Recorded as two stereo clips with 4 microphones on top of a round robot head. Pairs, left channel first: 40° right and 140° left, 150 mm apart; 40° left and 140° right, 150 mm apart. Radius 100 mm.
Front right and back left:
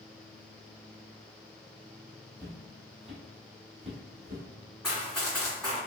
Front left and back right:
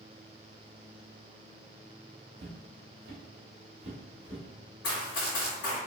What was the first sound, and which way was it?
Footsteps, 105° right.